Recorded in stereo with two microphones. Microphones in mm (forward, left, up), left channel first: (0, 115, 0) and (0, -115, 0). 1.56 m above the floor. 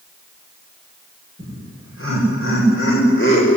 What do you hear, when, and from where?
1.4 s laughter: 65° left (ahead or behind), 8.5 m; by 3.6 s 55° left (ahead or behind), 7.5 m